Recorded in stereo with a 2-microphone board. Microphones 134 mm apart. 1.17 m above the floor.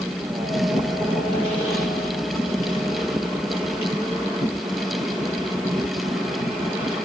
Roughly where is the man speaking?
I don't hear a man speaking.